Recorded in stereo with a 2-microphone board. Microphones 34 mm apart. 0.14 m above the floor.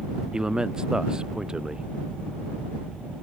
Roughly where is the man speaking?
Centre.